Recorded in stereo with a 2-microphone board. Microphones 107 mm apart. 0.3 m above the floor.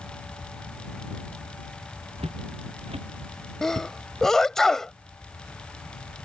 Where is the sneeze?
5° left (ahead or behind).